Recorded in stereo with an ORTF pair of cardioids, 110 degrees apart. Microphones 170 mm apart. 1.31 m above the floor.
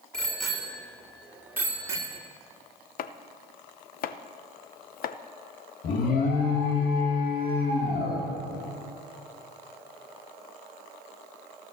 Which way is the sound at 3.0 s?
60° left.